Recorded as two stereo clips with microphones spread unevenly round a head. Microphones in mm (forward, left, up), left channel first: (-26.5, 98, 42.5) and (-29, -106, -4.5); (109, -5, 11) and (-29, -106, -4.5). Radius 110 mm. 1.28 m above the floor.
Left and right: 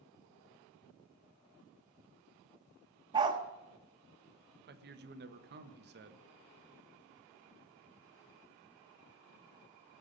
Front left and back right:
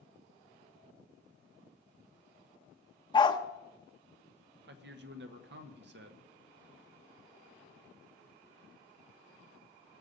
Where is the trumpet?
No trumpet in this recording.